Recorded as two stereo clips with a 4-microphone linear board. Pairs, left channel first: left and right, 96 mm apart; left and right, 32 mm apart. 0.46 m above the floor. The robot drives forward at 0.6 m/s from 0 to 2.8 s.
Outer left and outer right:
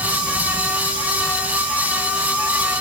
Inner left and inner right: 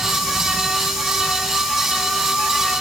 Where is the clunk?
No clunk in this recording.